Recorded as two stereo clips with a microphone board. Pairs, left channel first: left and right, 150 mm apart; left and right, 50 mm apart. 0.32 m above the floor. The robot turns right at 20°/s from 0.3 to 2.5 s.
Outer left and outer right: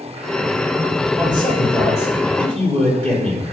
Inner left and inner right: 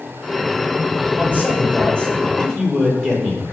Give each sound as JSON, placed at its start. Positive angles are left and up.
{"t": 1.2, "sound": "a man speaking", "side_deg": 35, "distance_m": 6.5}